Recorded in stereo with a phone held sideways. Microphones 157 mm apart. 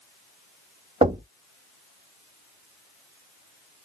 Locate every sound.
1.0 s knocking: 40° right (ahead or behind), 1.2 m